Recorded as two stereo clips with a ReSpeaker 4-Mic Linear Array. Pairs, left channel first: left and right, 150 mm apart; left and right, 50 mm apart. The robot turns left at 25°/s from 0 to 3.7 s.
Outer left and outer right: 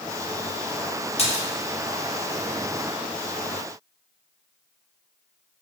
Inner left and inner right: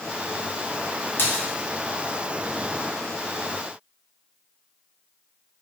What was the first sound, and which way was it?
A splash, 45° left (ahead or behind).